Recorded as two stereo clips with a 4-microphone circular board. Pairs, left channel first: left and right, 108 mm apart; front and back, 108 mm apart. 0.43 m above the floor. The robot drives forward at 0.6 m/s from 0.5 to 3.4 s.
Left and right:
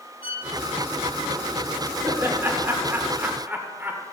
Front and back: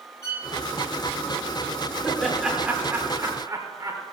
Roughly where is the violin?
Ahead left.